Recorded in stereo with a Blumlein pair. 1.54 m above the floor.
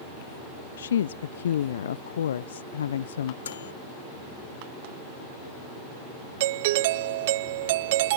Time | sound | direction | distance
0.8 | a woman speaking | 65° left | ?
3.4 | a microwave | 65° left | ?
6.4 | a doorbell | 50° right | ?